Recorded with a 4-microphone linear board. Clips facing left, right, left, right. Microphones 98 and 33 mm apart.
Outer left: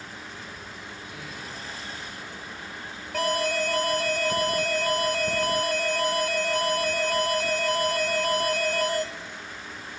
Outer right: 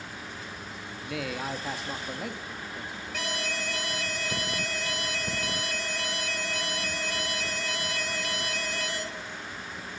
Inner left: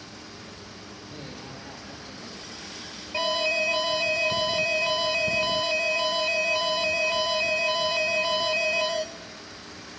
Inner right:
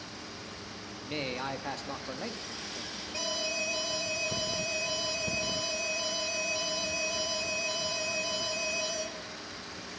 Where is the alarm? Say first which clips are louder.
Outer left 10 dB, inner left 9 dB; 45° left (ahead or behind), 1.9 m.